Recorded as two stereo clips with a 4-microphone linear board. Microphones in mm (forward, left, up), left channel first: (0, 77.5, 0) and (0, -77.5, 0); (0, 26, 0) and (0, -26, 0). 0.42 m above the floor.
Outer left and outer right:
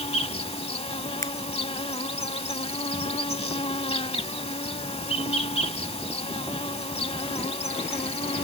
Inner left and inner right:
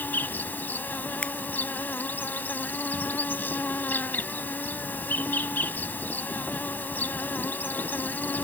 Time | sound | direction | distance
0.0 | an insect | 40° left (ahead or behind) | ?
1.2 | a finger snap | 20° left (ahead or behind) | ?